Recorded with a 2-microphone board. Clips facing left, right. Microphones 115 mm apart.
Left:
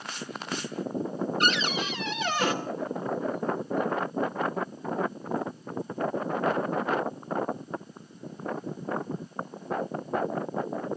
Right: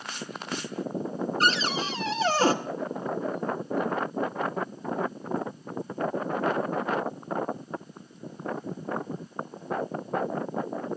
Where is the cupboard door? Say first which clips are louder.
Right 3 dB; 30° right (ahead or behind), 1.0 m.